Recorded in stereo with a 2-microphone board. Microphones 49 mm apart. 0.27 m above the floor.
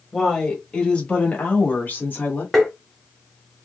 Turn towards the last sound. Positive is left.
turn(degrees=5)  # may be behind; listen again after turning